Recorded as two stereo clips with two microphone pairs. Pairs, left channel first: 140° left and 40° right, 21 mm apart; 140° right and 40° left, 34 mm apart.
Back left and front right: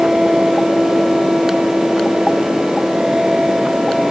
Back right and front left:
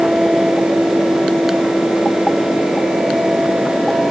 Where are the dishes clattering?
I don't hear dishes clattering.